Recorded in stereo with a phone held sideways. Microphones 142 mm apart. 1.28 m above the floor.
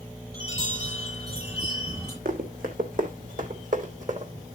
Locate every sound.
0.3 s a chime: 25° right (ahead or behind), 9 m
2.2 s running footsteps: 70° right (ahead or behind), 3.5 m; by 4.3 s 60° right (ahead or behind), 2.5 m